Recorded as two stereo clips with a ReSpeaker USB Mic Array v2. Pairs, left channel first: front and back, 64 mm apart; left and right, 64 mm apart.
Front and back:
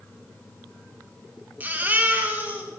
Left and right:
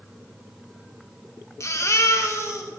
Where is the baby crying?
120° left, 1.2 m.